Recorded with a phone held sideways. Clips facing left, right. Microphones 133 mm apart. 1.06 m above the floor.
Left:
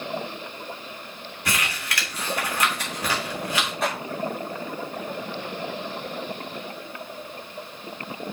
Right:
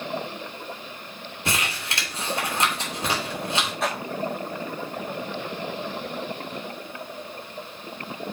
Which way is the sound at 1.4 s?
25° right (ahead or behind).